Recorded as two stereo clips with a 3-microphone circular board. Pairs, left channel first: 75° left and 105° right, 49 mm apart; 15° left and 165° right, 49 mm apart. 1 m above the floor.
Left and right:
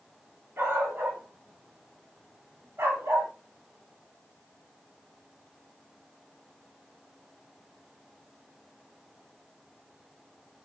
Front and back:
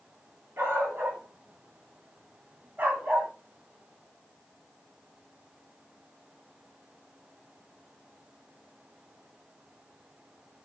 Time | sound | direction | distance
0.6 | a dog barking | 135° right | 2.5 m